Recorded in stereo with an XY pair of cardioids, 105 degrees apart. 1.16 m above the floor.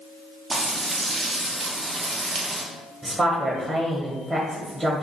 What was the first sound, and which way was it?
Frying, 30° right.